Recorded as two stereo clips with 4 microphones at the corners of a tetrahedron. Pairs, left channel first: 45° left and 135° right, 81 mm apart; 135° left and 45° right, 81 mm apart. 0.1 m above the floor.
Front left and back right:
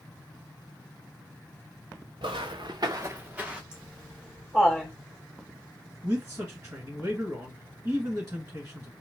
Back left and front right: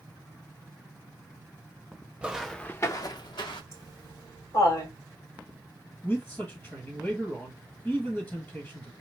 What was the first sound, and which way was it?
Footsteps, 120° right.